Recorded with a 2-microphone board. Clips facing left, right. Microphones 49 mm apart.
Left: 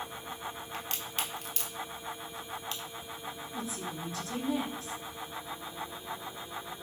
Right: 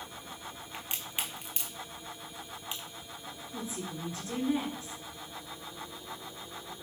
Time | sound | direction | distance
0.7 | a crack | 20° right (ahead or behind) | 1.0 m
3.5 | a woman speaking | 30° right (ahead or behind) | 1.3 m